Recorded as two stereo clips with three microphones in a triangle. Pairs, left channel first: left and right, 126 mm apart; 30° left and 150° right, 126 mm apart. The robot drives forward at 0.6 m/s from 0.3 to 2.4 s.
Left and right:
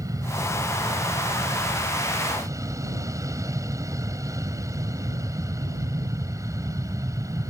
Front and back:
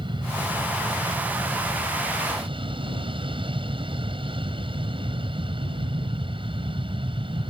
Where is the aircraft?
140° right; by 7.5 s 145° right.